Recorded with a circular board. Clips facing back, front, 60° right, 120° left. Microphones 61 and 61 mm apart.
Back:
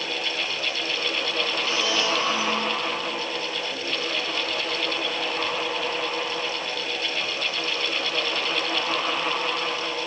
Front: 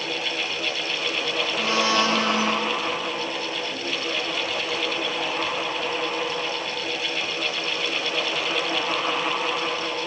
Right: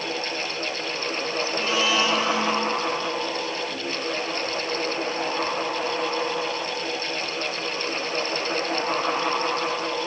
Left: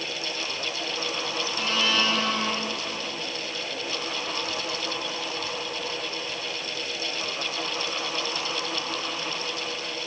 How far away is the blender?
About 2 m.